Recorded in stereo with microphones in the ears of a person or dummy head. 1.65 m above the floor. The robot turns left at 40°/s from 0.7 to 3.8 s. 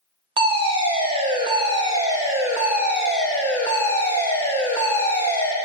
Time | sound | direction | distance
0.4 | a fire alarm | 25° right (ahead or behind) | 0.5 m